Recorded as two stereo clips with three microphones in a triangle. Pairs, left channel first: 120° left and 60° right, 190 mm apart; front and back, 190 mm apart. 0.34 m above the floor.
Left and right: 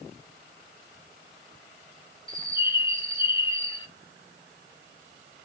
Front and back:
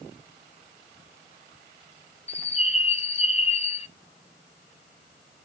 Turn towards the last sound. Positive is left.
turn(degrees=55)